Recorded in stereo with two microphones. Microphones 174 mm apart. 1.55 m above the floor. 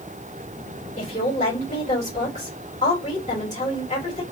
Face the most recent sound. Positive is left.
turn(degrees=40)  # may be behind; listen again after turning